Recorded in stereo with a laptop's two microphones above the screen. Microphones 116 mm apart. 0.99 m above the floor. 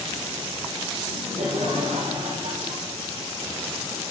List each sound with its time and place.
1.0 s laughter: 75° right (ahead or behind), 6 m; by 3.0 s 80° right, 5 m